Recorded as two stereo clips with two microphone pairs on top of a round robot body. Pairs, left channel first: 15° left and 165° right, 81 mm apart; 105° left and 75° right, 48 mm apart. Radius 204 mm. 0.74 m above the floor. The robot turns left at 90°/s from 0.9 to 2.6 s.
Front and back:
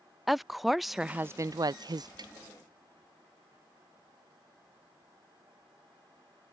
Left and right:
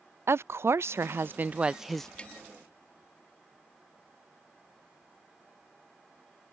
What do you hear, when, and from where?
0.3 s a woman speaking: 80° right; by 2.1 s 175° left
2.2 s tapping: 170° left; by 2.3 s 155° left